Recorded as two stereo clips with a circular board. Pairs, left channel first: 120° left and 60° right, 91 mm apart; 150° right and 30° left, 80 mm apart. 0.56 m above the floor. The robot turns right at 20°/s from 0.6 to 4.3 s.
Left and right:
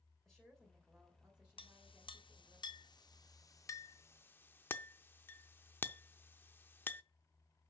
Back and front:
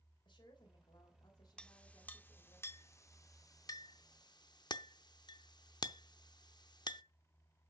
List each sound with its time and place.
0.2 s a woman speaking: 155° right, 2.5 m; by 2.6 s 115° right, 2.5 m
1.6 s a clink: 130° left, 0.6 m; by 7.0 s 175° right, 0.6 m